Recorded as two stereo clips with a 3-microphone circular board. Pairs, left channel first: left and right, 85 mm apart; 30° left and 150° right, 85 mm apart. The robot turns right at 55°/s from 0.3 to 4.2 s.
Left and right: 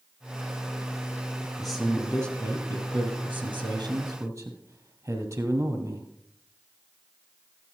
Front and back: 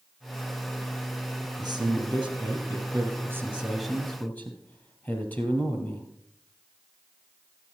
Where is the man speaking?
Straight behind, 3 m; by 6.1 s 40° right, 3 m.